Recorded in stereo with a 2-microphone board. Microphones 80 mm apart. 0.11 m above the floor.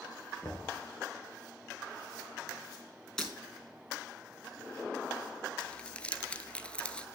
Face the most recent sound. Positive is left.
turn(degrees=15)  # may be behind; listen again after turning